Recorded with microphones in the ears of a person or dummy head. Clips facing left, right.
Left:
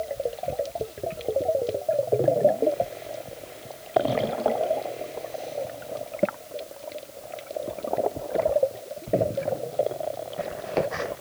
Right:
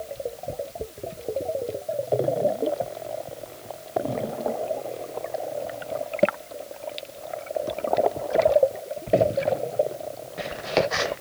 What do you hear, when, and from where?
Only background noise.